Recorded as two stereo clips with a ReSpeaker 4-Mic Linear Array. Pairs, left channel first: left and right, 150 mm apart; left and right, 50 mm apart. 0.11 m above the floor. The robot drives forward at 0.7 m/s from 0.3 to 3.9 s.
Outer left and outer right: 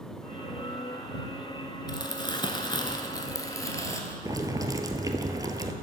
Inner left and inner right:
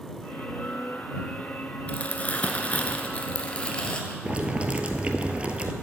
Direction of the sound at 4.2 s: 25° right (ahead or behind).